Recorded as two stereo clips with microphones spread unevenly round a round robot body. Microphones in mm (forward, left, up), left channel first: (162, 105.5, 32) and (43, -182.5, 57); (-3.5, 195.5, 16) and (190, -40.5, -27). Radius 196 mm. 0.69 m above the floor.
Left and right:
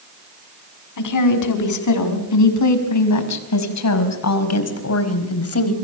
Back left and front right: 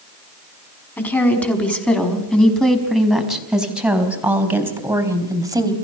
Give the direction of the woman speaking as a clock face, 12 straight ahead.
11 o'clock.